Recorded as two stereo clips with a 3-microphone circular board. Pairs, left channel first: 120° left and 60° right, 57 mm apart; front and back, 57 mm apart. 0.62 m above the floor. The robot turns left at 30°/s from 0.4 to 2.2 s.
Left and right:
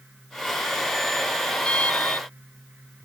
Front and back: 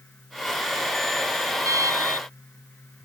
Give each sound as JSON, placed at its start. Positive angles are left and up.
{"t": 1.6, "sound": "an alarm", "azimuth_deg": -170}